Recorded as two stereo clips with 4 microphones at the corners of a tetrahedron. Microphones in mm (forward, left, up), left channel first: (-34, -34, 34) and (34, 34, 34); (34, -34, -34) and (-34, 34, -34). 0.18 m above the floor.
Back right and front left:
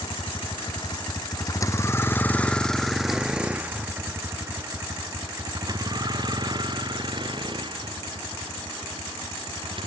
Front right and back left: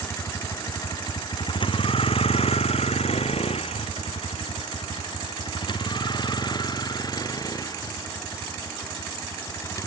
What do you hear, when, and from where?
0.0 s a vehicle: 105° right; by 9.9 s 10° left